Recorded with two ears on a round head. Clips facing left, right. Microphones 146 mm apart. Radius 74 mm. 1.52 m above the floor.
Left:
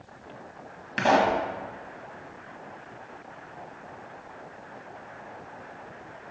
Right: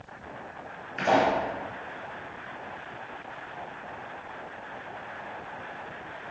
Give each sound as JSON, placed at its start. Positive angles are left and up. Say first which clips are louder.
{"t": 1.0, "sound": "a pop", "louder": "left 1 dB", "side_deg": 85, "distance_m": 1.9}